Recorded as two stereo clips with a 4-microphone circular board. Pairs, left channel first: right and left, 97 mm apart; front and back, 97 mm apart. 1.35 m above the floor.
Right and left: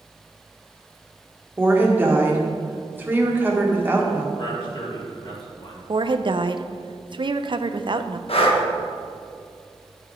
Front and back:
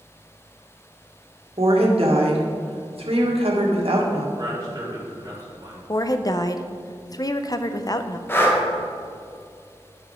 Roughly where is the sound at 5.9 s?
Ahead left.